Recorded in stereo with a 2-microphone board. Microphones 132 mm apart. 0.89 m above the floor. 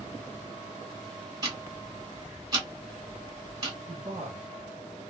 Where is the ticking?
35° right (ahead or behind), 2 m.